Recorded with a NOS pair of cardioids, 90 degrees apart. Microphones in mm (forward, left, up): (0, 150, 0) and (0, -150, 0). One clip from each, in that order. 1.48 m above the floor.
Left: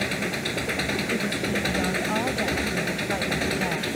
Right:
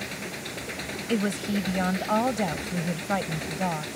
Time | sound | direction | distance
0.0 | an engine running | 55° left | ?
1.1 | a woman speaking | 35° right | ?